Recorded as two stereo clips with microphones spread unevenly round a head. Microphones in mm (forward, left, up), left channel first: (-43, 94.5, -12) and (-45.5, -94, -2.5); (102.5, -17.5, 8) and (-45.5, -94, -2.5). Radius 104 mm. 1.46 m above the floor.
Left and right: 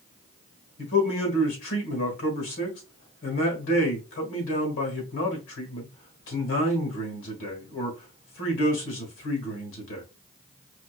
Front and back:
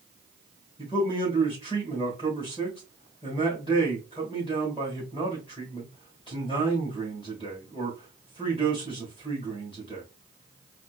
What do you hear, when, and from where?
0.8 s a man speaking: 100° left, 1.8 m